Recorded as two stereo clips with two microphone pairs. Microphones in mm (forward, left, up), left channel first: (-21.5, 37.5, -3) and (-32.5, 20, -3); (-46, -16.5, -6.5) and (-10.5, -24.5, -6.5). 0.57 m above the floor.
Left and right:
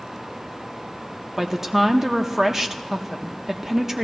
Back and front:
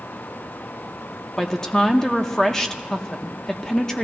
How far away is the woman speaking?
About 0.7 m.